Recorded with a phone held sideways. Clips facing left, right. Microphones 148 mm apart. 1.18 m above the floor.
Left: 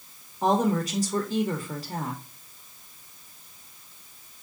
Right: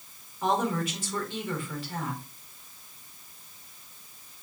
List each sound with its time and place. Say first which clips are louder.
0.4 s a woman speaking: left 4 dB; 40° left (ahead or behind), 1.9 m